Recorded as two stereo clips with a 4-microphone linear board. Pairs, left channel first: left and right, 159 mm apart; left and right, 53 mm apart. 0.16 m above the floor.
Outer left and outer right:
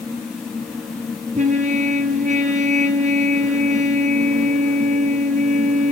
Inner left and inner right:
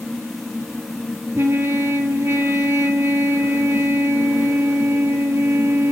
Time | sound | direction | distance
1.4 | a trumpet | 50° right (ahead or behind) | 1.6 m